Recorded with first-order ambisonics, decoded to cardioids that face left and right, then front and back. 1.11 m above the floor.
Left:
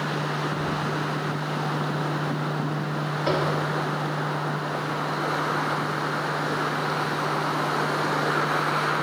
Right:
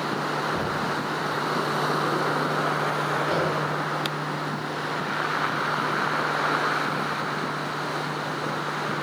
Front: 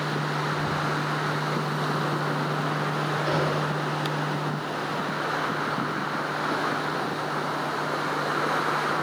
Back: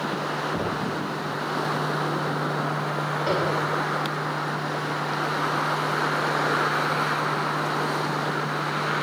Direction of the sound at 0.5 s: 150° right.